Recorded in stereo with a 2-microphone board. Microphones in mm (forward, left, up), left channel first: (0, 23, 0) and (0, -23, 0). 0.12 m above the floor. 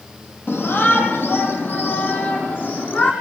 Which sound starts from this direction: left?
A shout, at 0.5 s.